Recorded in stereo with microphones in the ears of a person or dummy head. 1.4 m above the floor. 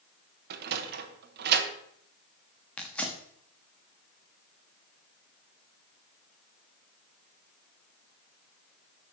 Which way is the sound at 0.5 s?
55° right (ahead or behind).